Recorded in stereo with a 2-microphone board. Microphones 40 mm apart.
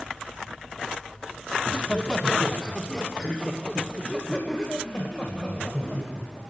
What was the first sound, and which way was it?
Laughter, 15° left (ahead or behind).